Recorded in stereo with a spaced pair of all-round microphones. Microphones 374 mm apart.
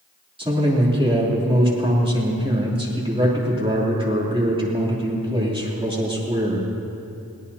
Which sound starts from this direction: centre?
A man speaking, at 0.4 s.